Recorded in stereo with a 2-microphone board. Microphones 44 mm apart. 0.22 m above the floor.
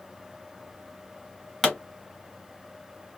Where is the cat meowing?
I don't hear a cat meowing.